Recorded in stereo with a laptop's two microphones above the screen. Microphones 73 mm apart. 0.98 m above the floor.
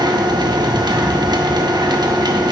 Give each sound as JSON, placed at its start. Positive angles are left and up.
{"t": 0.0, "sound": "a machine running", "side_deg": -75, "distance_m": 0.8}